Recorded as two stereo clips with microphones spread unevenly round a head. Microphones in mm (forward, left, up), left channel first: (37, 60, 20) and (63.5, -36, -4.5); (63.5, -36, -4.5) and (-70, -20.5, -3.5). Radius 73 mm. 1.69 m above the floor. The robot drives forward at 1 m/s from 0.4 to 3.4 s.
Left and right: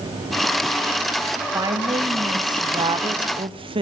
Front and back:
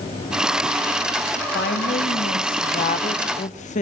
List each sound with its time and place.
1.5 s a woman speaking: 20° right, 3.5 m; by 3.8 s 40° right, 1.7 m